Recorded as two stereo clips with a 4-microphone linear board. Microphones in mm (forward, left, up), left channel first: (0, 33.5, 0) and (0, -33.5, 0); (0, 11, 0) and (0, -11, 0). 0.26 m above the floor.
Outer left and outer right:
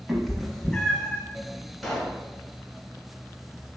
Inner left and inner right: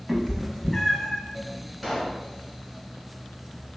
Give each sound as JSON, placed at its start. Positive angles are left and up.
{"t": 0.1, "sound": "a cat meowing", "side_deg": -5, "distance_m": 0.9}
{"t": 1.8, "sound": "a pop", "side_deg": 5, "distance_m": 1.5}